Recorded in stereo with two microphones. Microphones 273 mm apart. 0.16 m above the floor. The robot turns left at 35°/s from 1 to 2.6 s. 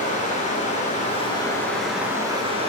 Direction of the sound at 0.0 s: 30° left.